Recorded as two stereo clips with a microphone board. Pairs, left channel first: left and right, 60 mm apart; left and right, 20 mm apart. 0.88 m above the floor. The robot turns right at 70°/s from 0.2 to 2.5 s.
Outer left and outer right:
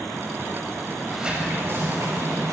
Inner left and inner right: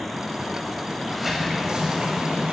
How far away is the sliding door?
About 5.5 m.